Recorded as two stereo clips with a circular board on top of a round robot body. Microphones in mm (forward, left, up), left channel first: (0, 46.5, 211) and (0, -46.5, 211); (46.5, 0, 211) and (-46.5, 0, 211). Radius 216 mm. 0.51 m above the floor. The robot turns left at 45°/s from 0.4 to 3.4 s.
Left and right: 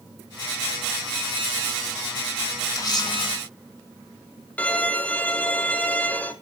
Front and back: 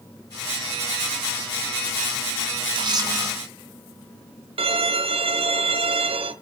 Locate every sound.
2.8 s a camera shutter: 145° left, 2 m; by 3.3 s 115° left, 2 m
4.6 s a violin: 165° left, 1.0 m